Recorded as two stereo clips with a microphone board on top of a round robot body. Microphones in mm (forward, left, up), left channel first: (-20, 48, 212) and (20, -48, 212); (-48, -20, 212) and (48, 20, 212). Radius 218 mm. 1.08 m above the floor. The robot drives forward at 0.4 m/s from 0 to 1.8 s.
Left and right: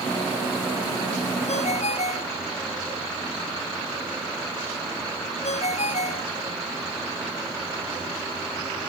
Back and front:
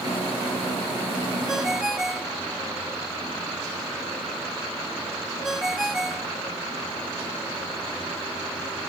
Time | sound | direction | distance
1.5 | a ringtone | 110° left | ?